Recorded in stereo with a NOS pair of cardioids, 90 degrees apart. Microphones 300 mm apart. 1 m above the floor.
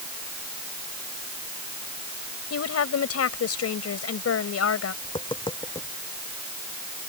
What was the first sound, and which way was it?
A woman speaking, 50° left.